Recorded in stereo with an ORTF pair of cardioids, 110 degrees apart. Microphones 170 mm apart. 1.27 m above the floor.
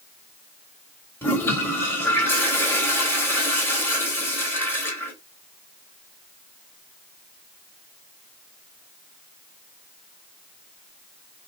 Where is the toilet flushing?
10° left, 1.1 m.